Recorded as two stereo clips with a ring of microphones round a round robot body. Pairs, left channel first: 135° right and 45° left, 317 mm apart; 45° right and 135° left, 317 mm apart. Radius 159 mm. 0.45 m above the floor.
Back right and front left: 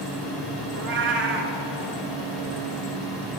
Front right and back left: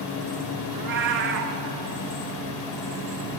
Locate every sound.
0.7 s a cat meowing: 90° left, 0.6 m